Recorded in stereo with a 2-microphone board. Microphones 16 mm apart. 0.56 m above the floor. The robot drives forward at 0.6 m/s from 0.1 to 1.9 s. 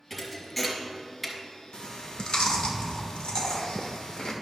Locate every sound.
0.1 s a thud: 5° left (ahead or behind), 2 m; by 1.4 s 10° left (ahead or behind), 1.4 m
1.7 s chewing: 65° left (ahead or behind), 1.1 m; by 4.3 s 60° left (ahead or behind), 1.1 m